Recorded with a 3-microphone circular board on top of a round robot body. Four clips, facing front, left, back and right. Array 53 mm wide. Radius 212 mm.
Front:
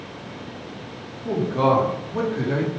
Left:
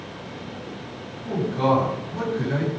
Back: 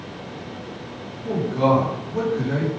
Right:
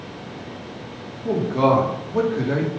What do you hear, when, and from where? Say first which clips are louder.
1.2 s a man speaking: right 3 dB, even; 75° right, 3.5 m